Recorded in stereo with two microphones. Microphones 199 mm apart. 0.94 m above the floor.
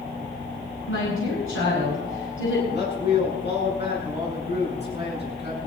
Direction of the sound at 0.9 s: 80° left.